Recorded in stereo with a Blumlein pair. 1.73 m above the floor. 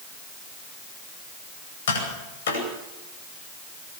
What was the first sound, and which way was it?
Tapping, 60° left.